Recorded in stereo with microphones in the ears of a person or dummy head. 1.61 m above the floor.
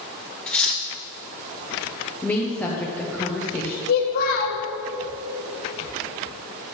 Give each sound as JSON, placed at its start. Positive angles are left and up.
{"t": 0.5, "sound": "cutlery clinking", "side_deg": 5, "distance_m": 1.0}
{"t": 2.2, "sound": "a woman speaking", "side_deg": 5, "distance_m": 0.9}
{"t": 3.9, "sound": "a child speaking", "side_deg": 40, "distance_m": 0.8}